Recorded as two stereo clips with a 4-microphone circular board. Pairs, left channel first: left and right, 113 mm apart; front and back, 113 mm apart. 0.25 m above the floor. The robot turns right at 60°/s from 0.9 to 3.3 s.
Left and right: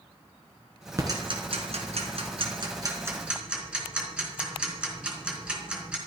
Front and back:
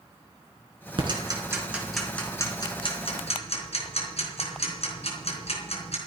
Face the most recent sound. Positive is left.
turn(degrees=-10)